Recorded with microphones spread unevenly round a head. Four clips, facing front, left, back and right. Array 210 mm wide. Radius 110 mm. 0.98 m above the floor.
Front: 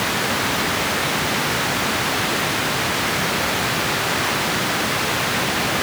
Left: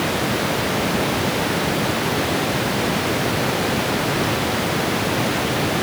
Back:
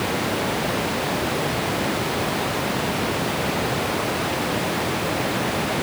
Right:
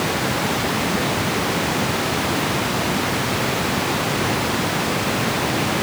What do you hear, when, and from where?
Only background noise.